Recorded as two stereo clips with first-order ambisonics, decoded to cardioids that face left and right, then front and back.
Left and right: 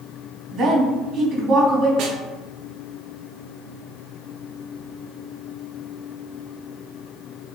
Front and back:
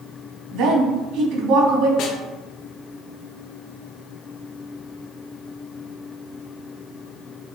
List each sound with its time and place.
0.5 s a woman speaking: 150° right, 2.5 m
2.0 s a snare drum: 40° right, 1.0 m